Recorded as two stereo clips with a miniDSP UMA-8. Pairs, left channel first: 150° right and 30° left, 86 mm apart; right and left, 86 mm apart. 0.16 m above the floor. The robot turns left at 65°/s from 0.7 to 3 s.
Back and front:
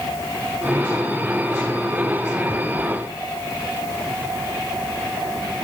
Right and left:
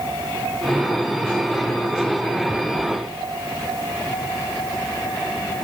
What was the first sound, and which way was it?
Only background noise.